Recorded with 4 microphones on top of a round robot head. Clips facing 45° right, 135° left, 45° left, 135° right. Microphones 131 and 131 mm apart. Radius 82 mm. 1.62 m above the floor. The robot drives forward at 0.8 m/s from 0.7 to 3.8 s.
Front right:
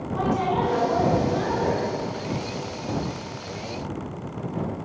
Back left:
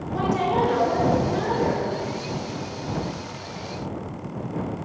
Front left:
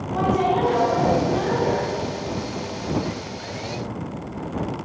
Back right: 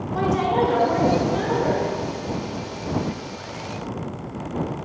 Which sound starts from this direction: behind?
A woman speaking, at 0.1 s.